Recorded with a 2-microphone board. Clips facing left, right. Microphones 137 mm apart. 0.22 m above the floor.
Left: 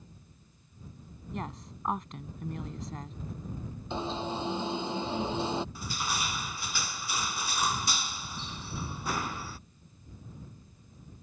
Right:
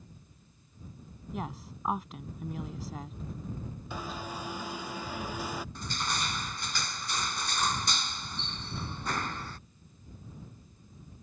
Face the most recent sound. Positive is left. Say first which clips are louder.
# even
turn(degrees=5)  # may be behind; listen again after turning